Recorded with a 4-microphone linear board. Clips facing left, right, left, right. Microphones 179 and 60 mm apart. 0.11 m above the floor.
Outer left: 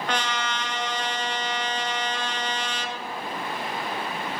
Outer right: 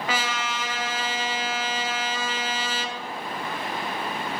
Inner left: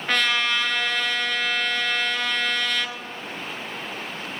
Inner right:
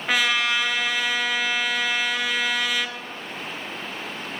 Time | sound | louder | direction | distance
0.1 | a trumpet | outer left 1 dB, inner right 1 dB | 5° right (ahead or behind) | 0.6 m